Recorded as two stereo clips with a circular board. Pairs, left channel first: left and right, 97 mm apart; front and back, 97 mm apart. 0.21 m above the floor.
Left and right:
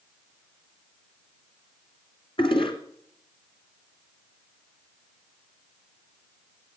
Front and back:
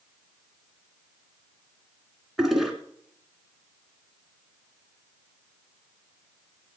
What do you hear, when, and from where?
2.4 s a toilet flushing: 95° left, 1.9 m